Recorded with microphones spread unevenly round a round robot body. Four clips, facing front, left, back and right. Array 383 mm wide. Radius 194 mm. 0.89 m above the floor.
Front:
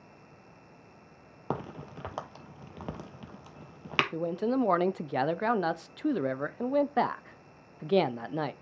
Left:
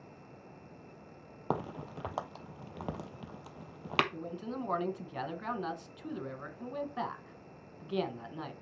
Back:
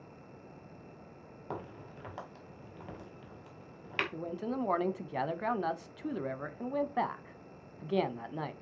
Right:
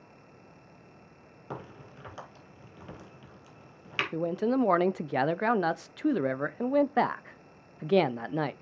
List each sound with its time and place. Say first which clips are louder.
1.5 s a crack: left 7 dB, front 7 dB; 35° left, 1.0 m
4.1 s a man speaking: right 12 dB, front 9 dB; 60° right, 0.6 m